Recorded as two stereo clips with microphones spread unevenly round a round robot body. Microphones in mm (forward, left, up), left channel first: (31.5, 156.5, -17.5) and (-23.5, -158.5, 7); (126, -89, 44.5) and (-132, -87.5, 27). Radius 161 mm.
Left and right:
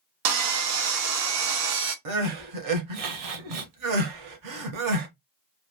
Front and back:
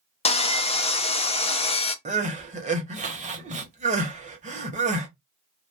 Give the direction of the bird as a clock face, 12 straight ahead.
No bird in this recording.